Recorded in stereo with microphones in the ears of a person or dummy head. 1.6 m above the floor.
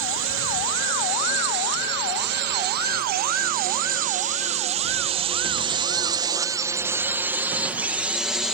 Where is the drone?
65° right (ahead or behind); by 8.5 s 5° right (ahead or behind).